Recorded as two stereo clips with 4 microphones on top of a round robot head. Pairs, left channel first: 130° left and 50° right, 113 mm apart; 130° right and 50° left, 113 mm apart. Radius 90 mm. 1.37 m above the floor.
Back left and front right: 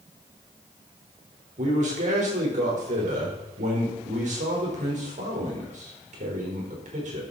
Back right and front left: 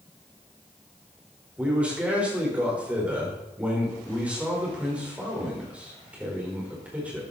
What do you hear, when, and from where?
1.6 s a man speaking: 30° right, 5 m